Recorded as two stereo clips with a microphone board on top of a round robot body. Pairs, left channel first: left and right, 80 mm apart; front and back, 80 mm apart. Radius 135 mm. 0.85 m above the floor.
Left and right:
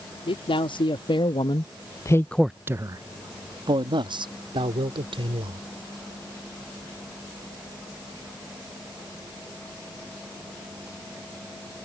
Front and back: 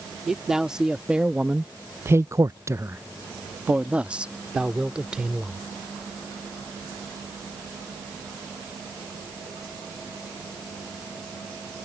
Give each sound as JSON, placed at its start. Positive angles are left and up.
{"t": 0.3, "sound": "a man speaking", "azimuth_deg": 95}